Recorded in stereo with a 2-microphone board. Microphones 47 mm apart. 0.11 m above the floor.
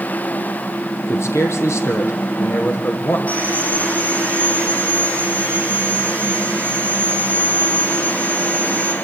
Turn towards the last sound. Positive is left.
turn(degrees=30)  # may be behind; listen again after turning